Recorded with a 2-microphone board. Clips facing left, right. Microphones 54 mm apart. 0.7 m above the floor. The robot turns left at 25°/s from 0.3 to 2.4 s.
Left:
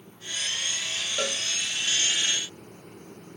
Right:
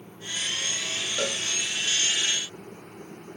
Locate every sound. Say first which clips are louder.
1.2 s a cowbell: right 1 dB; centre (ahead or behind), 0.7 m; by 1.4 s 5° left (ahead or behind), 0.7 m